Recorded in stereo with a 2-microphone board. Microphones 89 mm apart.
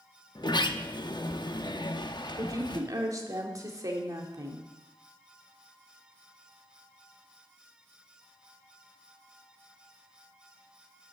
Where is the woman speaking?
40° right (ahead or behind), 2 m.